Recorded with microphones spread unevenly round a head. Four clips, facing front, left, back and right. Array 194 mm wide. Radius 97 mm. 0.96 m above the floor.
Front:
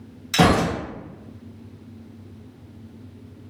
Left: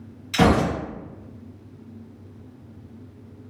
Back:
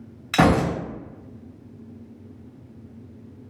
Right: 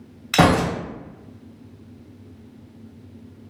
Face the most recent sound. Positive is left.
turn(degrees=-100)